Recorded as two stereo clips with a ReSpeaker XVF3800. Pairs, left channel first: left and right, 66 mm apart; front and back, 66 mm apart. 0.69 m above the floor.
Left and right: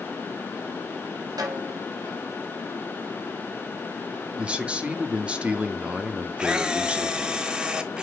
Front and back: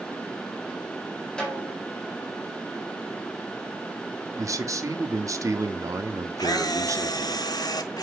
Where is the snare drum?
80° right, 3 m.